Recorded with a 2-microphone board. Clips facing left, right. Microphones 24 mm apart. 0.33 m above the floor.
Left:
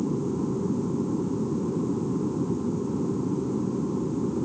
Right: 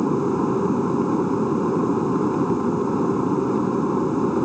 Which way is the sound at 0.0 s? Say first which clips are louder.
Right 7 dB; 65° right (ahead or behind).